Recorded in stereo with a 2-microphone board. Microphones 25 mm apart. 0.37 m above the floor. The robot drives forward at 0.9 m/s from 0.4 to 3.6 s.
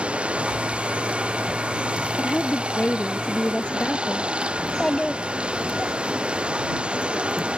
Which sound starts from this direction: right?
Running water, at 0.0 s.